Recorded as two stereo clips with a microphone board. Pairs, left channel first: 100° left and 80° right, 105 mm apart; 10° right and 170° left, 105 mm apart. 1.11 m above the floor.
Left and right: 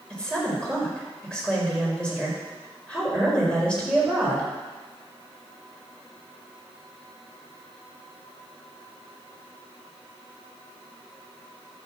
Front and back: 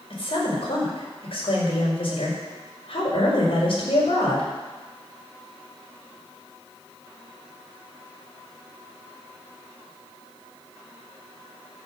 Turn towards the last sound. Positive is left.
turn(degrees=20)